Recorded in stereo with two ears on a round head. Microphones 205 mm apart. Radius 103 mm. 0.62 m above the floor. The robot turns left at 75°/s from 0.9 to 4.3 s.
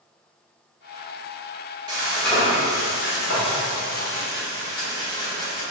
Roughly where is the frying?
Behind.